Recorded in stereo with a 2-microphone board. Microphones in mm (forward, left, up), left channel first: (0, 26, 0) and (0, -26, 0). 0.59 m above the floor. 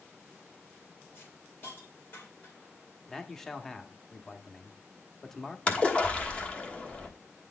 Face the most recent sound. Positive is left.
turn(degrees=25)  # may be behind; listen again after turning